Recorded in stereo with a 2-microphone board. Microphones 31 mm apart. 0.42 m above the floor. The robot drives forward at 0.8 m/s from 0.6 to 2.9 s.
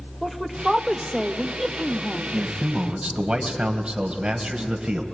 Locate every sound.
0.2 s a woman speaking: centre (ahead or behind), 1.2 m
2.3 s a man speaking: 20° right (ahead or behind), 2.5 m; by 5.0 s 25° right (ahead or behind), 1.9 m